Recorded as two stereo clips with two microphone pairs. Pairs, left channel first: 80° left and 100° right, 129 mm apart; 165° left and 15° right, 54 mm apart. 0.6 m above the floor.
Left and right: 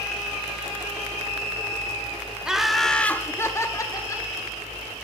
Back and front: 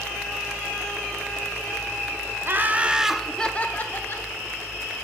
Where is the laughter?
10° right, 0.7 m; by 4.3 s 135° left, 1.0 m.